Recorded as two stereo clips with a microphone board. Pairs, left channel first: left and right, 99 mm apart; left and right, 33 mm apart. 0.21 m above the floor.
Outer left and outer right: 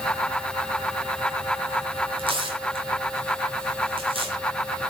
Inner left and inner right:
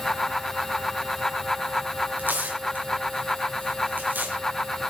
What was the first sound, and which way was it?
Tearing paper, 60° right (ahead or behind).